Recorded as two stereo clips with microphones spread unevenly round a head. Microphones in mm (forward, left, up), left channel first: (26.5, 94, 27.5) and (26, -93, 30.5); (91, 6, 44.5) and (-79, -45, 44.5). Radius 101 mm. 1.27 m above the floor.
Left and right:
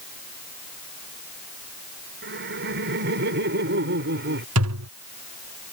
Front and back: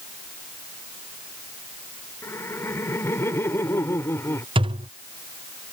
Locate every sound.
2.2 s laughter: 60° right
4.5 s a thud: 100° right